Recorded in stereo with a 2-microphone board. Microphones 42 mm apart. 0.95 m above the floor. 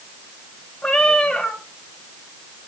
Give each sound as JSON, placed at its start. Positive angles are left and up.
{"t": 0.8, "sound": "a cat meowing", "side_deg": 15, "distance_m": 1.4}